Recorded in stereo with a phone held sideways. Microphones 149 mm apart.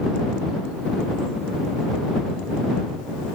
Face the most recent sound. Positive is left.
No sound to turn to.